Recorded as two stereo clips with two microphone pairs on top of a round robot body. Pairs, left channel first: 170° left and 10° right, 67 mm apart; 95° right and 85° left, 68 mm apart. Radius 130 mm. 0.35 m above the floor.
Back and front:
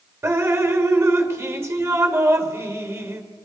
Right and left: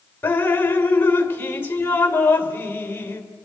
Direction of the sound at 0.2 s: 35° right.